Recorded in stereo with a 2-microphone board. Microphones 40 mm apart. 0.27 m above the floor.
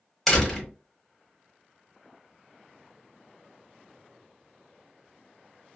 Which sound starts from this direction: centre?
A door slam, at 0.3 s.